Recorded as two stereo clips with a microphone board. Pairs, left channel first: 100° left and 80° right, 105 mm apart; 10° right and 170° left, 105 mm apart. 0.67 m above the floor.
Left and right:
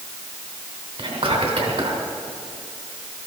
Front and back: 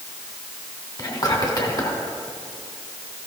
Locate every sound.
1.0 s whispering: 60° right, 2.5 m